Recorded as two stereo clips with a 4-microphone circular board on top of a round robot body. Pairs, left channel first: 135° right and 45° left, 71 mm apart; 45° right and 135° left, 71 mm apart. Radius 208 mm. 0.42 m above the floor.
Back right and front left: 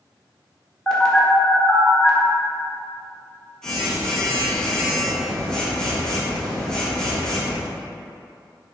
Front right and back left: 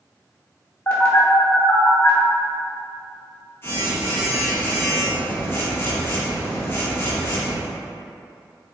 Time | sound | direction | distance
0.9 | a phone buzzing | 65° right | 1.2 m